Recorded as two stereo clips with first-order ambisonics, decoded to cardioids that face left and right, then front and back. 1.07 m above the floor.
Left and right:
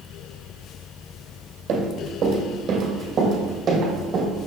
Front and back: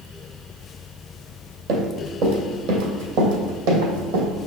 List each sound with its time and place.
1.7 s running footsteps: 145° right, 2 m; by 4.3 s 165° right, 3 m